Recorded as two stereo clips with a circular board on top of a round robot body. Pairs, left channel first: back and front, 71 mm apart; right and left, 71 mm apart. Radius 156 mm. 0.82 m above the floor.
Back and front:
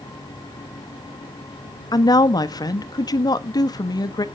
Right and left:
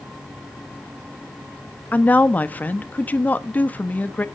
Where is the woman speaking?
155° right, 1.2 m.